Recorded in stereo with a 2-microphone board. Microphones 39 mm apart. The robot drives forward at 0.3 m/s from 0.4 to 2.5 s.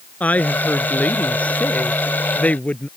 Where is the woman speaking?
40° left (ahead or behind); by 2.9 s 35° left (ahead or behind).